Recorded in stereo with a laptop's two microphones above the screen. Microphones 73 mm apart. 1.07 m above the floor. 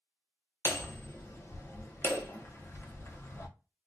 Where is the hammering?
40° left (ahead or behind), 0.6 m.